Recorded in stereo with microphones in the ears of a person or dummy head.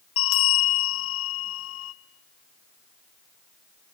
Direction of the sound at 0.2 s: 65° left (ahead or behind).